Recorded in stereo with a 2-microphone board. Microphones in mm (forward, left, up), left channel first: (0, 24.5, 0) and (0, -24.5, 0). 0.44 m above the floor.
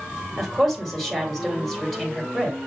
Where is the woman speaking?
Centre (ahead or behind), 2.0 m.